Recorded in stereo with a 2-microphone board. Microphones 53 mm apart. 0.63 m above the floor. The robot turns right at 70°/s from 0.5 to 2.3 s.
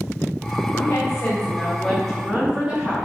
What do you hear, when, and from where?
0.8 s a woman speaking: 95° left, 3.5 m; by 3.0 s 155° right, 3.5 m